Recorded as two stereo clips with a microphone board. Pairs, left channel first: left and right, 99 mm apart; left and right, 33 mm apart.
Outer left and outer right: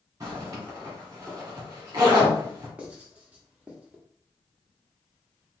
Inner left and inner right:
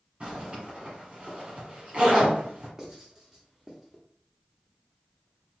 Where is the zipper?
35° right (ahead or behind), 1.7 m.